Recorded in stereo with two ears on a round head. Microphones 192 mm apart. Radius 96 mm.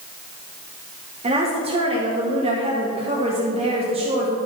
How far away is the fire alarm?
I don't hear a fire alarm.